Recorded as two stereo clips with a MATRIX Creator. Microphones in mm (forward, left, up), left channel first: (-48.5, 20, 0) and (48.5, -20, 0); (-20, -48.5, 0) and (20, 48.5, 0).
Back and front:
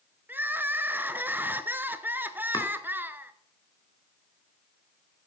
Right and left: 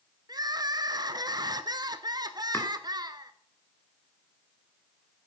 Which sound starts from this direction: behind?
Chopping, at 2.5 s.